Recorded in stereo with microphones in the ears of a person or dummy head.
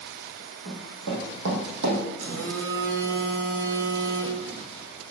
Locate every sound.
0.7 s running footsteps: 65° right (ahead or behind), 3.5 m; by 2.0 s 60° right (ahead or behind), 3 m
2.2 s a phone buzzing: 70° right (ahead or behind), 1.8 m